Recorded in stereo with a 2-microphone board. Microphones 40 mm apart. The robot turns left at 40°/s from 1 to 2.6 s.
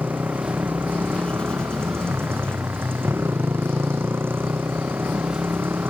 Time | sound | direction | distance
0.0 | a motorcycle | 50° right | ?